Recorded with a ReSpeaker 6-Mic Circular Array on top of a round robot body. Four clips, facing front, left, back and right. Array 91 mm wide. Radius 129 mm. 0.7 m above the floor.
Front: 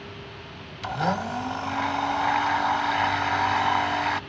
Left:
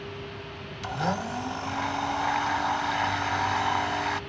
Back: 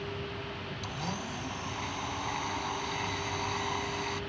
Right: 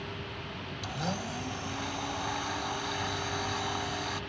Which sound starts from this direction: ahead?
A blender, at 0.8 s.